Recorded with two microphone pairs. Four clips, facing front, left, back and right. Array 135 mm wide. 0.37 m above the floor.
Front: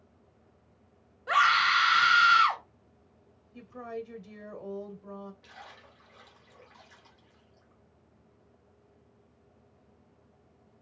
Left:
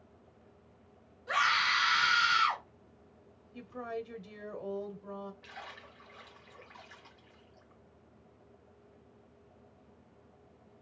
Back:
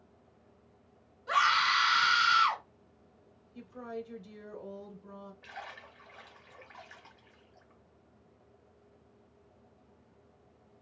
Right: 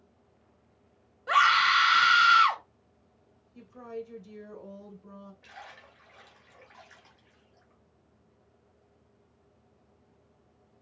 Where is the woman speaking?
55° left, 1.2 m.